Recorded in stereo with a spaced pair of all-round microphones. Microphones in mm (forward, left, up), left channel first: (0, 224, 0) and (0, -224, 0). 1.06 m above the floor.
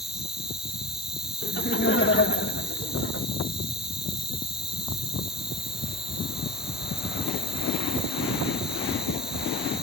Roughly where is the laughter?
Left.